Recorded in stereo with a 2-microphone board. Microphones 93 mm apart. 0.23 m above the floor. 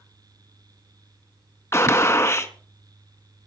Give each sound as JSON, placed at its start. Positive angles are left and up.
{"t": 1.7, "sound": "a gunshot", "side_deg": 30, "distance_m": 1.0}